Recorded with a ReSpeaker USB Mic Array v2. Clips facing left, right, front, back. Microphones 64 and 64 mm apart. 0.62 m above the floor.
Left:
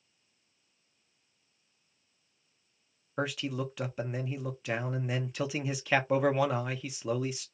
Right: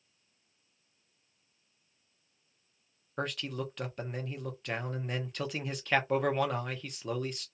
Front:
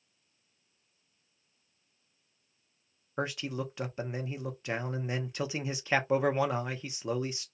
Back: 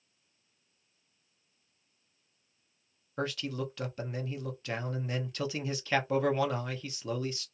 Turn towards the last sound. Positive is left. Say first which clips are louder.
# left 3 dB, even
turn(degrees=15)